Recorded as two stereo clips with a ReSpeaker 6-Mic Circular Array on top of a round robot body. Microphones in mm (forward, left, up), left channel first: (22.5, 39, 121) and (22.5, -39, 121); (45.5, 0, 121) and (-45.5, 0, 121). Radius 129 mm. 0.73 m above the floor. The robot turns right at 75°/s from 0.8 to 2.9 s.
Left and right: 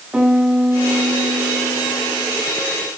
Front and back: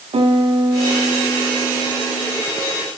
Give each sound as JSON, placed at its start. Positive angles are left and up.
{"t": 0.1, "sound": "a piano", "azimuth_deg": -165, "distance_m": 3.0}